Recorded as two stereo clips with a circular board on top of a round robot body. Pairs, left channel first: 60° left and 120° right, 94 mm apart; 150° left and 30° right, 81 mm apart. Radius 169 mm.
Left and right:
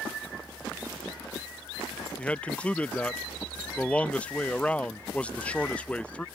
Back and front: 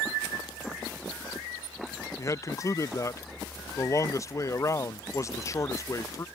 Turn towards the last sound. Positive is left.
turn(degrees=130)